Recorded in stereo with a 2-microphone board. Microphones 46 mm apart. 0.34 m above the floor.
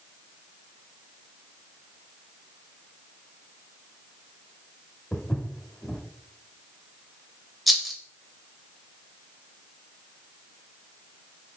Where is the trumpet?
No trumpet in this recording.